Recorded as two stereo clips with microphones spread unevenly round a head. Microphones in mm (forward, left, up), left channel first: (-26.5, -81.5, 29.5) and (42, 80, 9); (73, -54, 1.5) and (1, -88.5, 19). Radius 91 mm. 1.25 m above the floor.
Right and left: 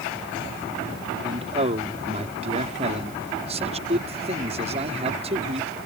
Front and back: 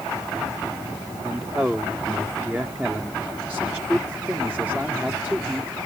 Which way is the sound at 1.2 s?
125° left.